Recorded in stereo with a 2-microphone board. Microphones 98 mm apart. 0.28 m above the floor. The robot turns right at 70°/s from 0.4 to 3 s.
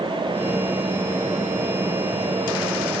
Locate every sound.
Only background noise.